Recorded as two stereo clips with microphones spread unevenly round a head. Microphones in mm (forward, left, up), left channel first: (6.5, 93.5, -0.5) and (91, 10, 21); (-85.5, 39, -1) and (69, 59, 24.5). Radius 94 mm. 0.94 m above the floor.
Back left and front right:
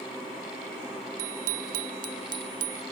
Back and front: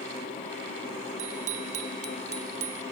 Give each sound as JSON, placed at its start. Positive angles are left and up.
{"t": 1.2, "sound": "a bicycle bell", "azimuth_deg": -50}